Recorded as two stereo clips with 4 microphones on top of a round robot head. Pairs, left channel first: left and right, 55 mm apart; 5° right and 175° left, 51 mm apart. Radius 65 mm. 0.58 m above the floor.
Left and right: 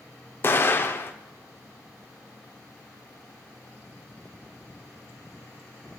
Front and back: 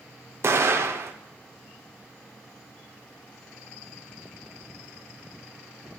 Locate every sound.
0.4 s an explosion: 140° left, 0.7 m